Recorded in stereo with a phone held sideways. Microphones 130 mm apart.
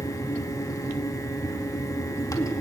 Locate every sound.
0.0 s a fan: 25° left (ahead or behind), 2 m